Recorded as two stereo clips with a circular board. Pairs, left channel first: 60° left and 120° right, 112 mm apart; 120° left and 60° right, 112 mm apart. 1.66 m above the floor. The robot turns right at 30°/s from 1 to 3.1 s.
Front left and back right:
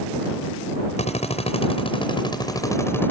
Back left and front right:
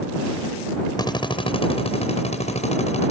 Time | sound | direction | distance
1.0 | a drill | 70° left | ?